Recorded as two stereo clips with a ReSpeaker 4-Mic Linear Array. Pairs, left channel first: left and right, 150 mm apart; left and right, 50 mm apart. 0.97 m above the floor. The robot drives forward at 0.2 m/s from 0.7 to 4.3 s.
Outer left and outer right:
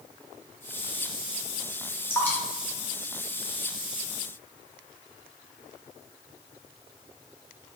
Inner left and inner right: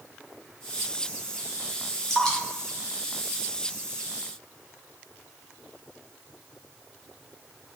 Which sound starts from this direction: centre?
Dripping, at 2.1 s.